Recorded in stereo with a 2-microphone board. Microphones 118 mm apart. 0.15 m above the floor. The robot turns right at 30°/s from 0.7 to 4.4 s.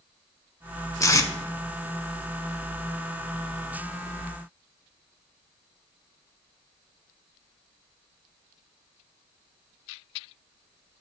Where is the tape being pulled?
30° left (ahead or behind), 0.6 m.